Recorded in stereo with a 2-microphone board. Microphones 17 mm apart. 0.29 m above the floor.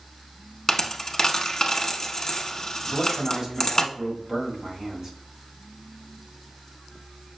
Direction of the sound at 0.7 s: 35° left (ahead or behind).